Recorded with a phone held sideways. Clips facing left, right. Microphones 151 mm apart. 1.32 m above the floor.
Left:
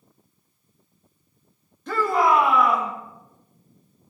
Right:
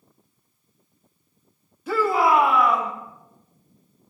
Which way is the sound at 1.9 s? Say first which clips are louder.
Right 1 dB; 5° right (ahead or behind).